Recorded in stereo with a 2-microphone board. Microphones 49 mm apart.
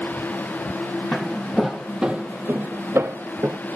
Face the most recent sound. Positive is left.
turn(degrees=-65)  # may be behind; listen again after turning